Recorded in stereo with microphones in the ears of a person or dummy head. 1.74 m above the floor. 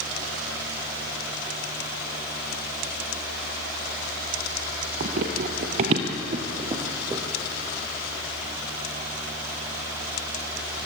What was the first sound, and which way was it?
Running footsteps, 40° right (ahead or behind).